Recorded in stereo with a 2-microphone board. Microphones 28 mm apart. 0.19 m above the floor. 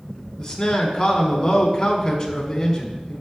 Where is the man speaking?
20° left (ahead or behind), 1.3 m.